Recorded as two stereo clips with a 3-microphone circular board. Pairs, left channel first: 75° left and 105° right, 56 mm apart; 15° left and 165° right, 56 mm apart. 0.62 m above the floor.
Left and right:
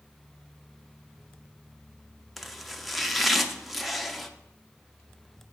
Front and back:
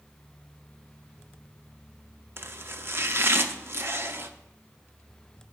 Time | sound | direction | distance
2.4 | chopping | 165° left | 0.6 m